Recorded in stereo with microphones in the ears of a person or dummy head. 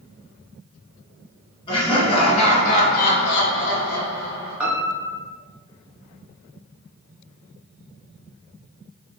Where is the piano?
5° right (ahead or behind), 0.8 m.